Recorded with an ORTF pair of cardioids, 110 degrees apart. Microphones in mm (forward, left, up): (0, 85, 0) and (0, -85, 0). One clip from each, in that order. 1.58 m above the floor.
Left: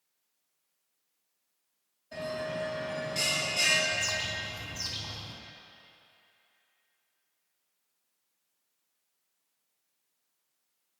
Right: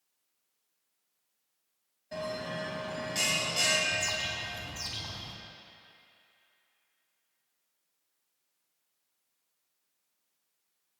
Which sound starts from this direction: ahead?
A bird, at 3.9 s.